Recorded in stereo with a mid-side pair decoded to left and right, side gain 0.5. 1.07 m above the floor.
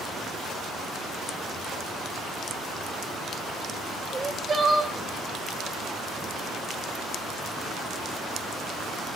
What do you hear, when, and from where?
4.1 s crying: 30° right, 2 m